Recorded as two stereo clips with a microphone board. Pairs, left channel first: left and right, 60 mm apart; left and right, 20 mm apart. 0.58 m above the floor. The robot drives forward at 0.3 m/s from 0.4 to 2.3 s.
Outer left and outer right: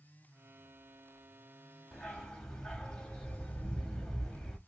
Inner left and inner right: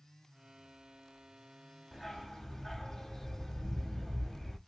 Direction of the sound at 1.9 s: 5° left (ahead or behind).